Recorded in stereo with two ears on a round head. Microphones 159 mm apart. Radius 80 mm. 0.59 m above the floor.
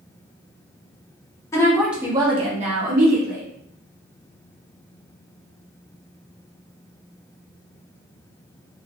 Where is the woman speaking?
15° left (ahead or behind), 0.6 m; by 3.5 s 55° right (ahead or behind), 1.0 m.